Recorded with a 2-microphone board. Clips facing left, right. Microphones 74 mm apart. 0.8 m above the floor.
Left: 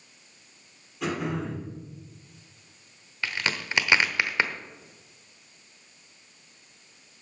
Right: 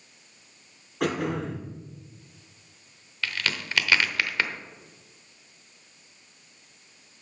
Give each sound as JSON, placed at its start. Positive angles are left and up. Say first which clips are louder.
{"t": 1.0, "sound": "throat clearing", "louder": "right 2 dB", "side_deg": -65, "distance_m": 4.0}
{"t": 3.2, "sound": "a crack", "louder": "left 1 dB", "side_deg": 20, "distance_m": 0.8}